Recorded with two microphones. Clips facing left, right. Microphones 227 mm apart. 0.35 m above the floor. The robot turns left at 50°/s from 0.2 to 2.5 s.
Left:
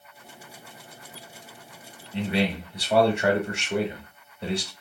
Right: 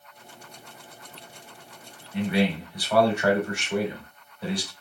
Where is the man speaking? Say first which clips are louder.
Right 2 dB; 30° left (ahead or behind), 0.9 m; by 4.7 s 25° left (ahead or behind), 0.9 m.